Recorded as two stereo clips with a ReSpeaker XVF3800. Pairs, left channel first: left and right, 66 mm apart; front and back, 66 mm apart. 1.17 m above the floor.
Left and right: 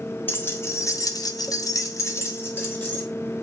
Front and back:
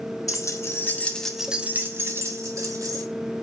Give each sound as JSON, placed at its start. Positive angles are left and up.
{"t": 0.3, "sound": "keys jangling", "azimuth_deg": 30, "distance_m": 1.7}